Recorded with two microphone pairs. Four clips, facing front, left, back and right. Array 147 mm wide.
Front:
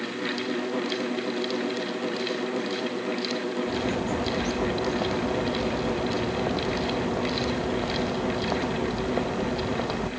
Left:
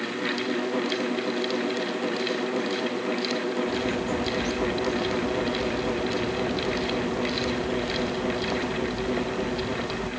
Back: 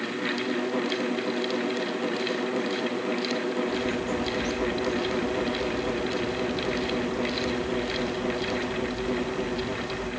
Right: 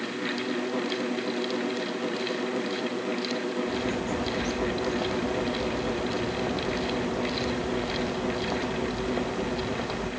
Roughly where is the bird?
Ahead.